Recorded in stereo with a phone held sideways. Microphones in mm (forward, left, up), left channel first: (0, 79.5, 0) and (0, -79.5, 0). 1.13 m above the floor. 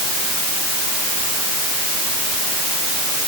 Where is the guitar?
No guitar in this recording.